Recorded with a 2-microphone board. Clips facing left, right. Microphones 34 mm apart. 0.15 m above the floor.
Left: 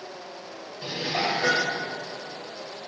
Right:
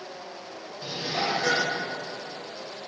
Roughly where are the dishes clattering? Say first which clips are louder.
Left 2 dB; left.